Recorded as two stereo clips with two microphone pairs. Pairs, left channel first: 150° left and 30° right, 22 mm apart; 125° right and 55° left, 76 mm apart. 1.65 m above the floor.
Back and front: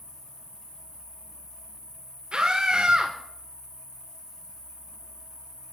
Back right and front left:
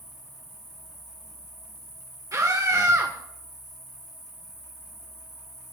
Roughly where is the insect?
Behind.